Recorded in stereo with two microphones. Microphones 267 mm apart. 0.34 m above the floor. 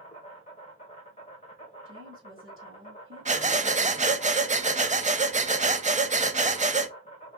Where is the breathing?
25° right (ahead or behind), 0.5 m.